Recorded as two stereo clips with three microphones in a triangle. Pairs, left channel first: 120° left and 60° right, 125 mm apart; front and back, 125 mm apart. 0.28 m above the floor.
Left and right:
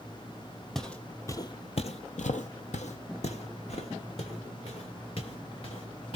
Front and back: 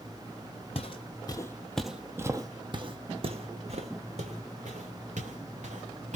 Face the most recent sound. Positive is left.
turn(degrees=160)